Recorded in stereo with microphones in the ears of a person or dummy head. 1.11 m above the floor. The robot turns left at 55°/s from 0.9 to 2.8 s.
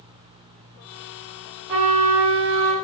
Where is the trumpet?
25° right, 1.5 m; by 2.8 s 80° right, 1.5 m.